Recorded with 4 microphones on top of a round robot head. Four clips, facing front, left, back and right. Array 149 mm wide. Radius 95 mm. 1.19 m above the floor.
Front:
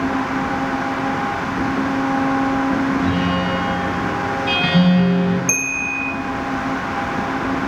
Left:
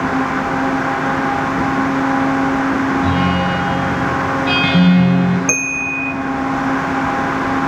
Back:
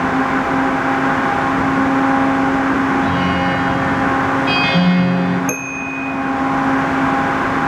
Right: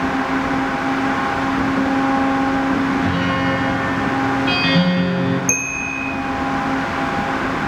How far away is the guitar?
About 7.5 m.